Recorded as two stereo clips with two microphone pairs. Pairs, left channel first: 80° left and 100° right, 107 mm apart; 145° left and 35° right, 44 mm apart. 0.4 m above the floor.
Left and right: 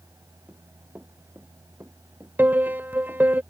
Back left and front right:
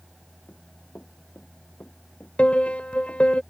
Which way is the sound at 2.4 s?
165° right.